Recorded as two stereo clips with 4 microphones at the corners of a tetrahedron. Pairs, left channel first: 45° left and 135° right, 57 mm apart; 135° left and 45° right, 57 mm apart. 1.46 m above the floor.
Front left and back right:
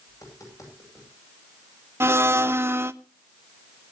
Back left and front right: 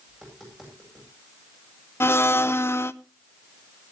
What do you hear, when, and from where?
0.1 s tapping: 40° left, 9 m
2.0 s a blender: straight behind, 0.7 m